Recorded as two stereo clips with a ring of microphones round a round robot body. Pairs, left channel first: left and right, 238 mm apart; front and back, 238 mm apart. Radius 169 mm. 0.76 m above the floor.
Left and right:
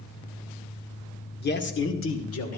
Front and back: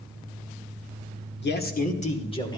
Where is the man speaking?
45° left, 2 m; by 2.6 s 75° left, 2.5 m.